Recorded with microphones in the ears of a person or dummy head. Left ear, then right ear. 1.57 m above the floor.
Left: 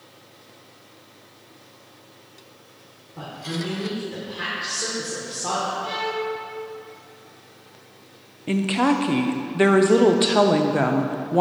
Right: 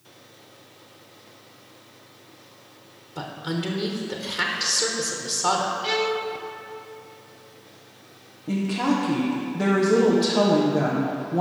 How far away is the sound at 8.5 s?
About 0.6 m.